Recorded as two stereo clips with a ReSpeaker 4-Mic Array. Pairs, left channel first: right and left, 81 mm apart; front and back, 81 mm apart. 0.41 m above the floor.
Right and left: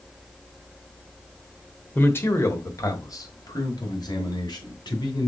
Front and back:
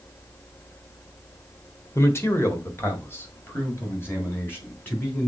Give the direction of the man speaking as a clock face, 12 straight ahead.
1 o'clock.